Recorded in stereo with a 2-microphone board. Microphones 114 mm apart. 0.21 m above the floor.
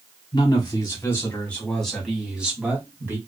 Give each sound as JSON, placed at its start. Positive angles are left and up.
{"t": 0.3, "sound": "a man speaking", "side_deg": 40, "distance_m": 1.2}